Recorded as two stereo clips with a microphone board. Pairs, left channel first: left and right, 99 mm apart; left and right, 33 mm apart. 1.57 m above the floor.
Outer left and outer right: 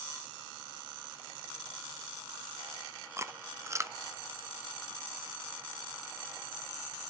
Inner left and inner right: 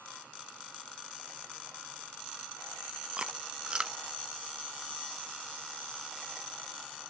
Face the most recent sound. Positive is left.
turn(degrees=-30)  # may be behind; listen again after turning